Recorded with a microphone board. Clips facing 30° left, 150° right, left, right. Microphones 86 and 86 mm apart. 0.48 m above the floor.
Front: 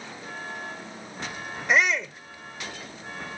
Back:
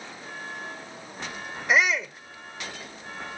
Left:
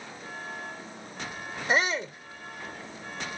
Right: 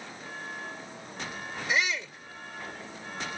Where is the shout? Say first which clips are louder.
Even, left 4 dB; 125° left.